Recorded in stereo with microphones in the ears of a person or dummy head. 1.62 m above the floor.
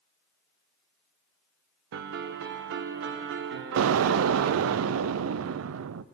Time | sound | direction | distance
1.9 | a piano | 60° right (ahead or behind) | 1.1 m
3.8 | an explosion | 80° right | 0.5 m